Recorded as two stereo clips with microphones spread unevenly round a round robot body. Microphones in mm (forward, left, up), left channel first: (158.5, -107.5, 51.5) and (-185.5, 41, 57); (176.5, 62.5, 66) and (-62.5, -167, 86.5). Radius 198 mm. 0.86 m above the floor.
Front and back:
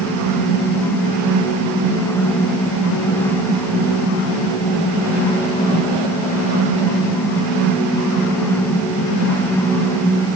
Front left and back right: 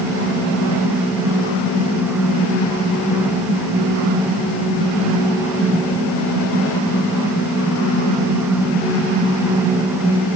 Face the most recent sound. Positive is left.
No sound to turn to.